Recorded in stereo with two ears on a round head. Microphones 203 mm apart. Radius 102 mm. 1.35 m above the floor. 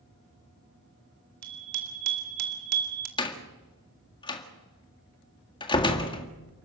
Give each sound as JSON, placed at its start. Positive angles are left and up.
{"t": 1.4, "sound": "a bicycle bell", "side_deg": -85, "distance_m": 4.5}
{"t": 3.2, "sound": "a door slam", "side_deg": 20, "distance_m": 1.9}